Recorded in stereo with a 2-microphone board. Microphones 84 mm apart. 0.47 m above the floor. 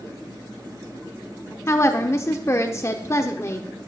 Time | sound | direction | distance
1.7 | a woman speaking | 35° left (ahead or behind) | 0.8 m